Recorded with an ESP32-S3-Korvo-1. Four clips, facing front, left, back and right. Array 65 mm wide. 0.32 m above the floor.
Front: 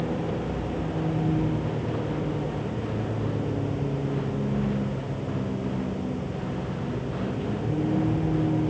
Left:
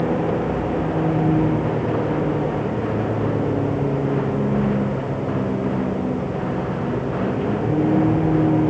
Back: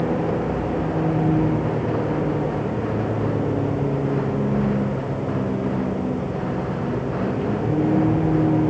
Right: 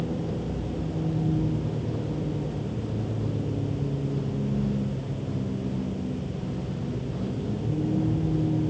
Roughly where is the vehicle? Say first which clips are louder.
Left 10 dB, back 7 dB; behind left.